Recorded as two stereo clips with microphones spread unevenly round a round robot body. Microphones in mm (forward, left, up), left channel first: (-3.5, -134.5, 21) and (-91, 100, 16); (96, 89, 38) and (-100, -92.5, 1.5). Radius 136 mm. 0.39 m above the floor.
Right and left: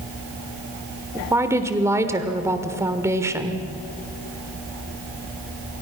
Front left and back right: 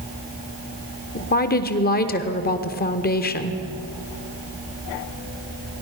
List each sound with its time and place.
1.1 s a woman speaking: 50° left, 1.2 m